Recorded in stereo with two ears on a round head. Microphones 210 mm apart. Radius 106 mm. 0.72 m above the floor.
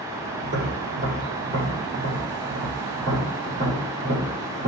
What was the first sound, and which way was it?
Tapping, 35° right (ahead or behind).